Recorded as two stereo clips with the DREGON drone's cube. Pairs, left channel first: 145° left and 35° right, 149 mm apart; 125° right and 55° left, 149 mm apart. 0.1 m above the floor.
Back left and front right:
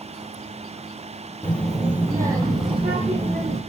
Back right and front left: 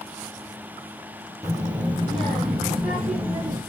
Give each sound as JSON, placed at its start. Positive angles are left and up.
{"t": 1.4, "sound": "a child speaking", "azimuth_deg": 90, "distance_m": 0.8}